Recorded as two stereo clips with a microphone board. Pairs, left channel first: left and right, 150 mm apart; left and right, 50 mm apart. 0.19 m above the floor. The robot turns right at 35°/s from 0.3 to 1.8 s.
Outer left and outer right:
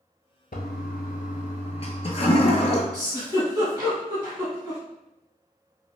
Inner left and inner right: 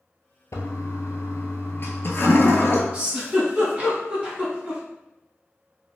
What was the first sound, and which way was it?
A toilet flushing, 85° left.